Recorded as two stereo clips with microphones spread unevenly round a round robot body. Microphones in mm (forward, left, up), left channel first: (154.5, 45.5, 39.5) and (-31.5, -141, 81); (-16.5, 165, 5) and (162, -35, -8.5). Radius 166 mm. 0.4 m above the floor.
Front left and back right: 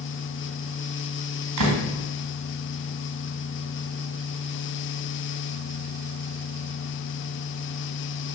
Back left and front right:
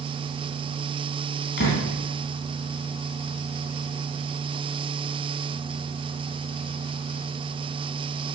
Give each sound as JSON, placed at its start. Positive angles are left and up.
{"t": 1.6, "sound": "a door slam", "azimuth_deg": -165, "distance_m": 3.0}